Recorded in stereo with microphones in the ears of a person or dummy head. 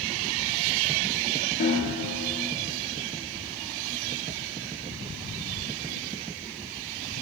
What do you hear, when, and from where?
1.6 s a snare drum: 40° left (ahead or behind), 1.3 m